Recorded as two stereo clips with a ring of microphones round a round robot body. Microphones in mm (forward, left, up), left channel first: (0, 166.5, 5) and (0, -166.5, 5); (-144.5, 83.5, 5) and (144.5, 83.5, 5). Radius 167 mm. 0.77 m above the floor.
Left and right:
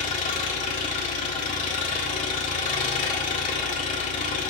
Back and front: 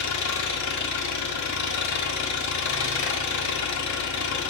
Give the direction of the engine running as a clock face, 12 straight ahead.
7 o'clock.